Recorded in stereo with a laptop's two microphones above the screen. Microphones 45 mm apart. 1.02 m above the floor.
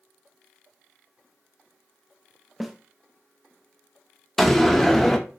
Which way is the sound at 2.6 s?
5° right (ahead or behind).